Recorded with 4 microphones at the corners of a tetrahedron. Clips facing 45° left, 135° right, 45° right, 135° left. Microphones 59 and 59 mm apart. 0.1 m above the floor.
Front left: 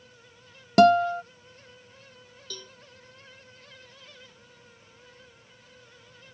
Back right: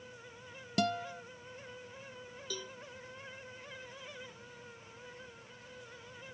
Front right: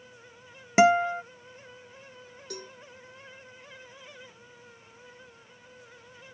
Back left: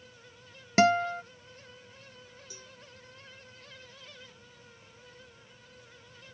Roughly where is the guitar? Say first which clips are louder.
Front left 17 dB, front right 4 dB; ahead left.